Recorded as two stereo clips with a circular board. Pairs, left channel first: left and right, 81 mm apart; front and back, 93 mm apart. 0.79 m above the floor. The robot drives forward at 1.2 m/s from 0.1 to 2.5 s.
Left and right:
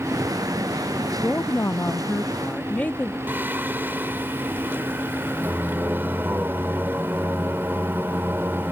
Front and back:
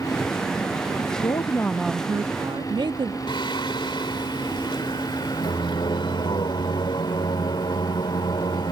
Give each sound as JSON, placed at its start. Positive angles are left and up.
{"t": 1.2, "sound": "a woman speaking", "azimuth_deg": 25}
{"t": 3.3, "sound": "singing", "azimuth_deg": -25}